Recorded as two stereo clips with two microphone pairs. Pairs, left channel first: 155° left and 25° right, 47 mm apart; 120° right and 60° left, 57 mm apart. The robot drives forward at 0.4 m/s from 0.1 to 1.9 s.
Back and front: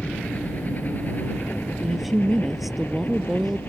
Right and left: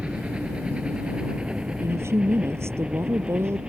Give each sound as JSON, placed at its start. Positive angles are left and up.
{"t": 0.0, "sound": "a helicopter", "azimuth_deg": 120}
{"t": 1.8, "sound": "a woman speaking", "azimuth_deg": 60}